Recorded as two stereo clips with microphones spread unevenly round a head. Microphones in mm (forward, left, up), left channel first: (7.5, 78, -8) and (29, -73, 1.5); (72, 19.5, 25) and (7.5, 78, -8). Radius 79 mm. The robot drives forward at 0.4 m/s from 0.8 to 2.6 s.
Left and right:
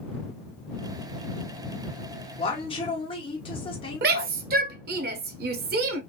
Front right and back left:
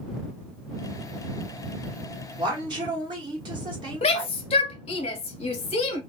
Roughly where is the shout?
Right.